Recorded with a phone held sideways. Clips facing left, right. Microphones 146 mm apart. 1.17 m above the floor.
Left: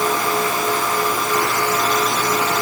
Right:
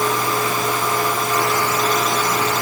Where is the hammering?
I don't hear hammering.